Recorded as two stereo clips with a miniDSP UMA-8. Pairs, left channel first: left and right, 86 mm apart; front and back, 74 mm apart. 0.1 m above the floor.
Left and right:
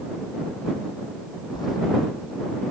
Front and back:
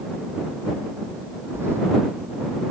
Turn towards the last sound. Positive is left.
turn(degrees=125)